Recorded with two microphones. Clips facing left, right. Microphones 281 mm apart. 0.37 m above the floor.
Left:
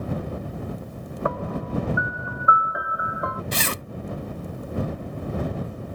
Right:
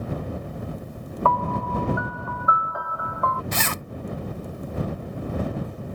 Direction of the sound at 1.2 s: 15° left (ahead or behind).